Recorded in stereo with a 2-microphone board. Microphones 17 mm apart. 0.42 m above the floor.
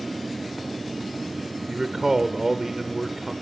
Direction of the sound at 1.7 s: 25° right (ahead or behind).